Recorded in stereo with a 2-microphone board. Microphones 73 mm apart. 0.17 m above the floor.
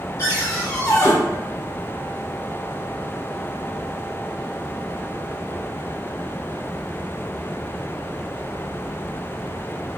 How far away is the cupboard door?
About 1.4 m.